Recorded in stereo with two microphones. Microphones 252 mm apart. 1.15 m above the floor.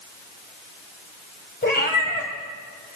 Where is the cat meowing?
40° left (ahead or behind), 2 m.